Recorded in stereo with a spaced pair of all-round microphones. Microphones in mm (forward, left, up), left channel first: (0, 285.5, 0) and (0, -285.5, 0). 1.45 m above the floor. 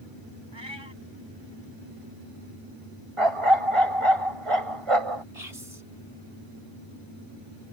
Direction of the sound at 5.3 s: 80° right.